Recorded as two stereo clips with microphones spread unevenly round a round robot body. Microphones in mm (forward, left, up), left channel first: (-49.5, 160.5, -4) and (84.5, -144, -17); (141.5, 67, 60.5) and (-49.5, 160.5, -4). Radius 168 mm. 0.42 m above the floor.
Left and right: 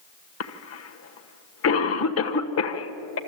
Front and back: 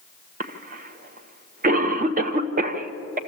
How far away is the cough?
About 1.2 m.